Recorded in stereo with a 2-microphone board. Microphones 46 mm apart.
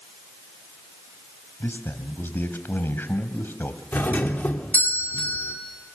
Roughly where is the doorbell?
Left.